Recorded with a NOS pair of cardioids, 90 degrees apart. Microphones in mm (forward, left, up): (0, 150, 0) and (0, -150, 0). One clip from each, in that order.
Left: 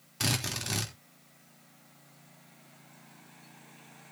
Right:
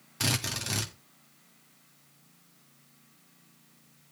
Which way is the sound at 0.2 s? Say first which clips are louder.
Right 1 dB; 5° right.